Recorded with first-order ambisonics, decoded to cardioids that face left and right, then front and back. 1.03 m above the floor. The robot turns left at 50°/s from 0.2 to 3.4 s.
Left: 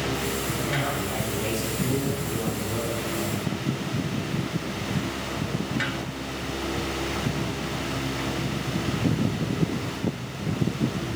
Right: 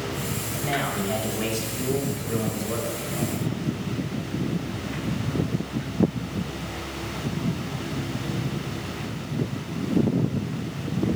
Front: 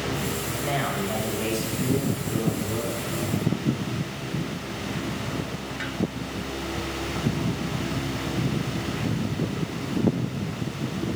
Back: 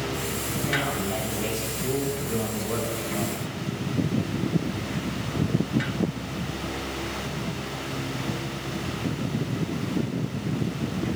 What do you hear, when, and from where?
0.5 s a man speaking: 20° right, 6 m; by 3.4 s 165° right, 6 m